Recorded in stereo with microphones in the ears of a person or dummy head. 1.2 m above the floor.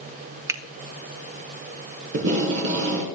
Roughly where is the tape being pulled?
Right.